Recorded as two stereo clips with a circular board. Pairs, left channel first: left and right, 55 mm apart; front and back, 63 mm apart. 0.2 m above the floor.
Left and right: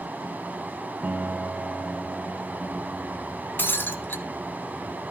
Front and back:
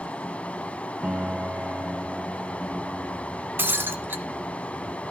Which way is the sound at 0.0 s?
55° right.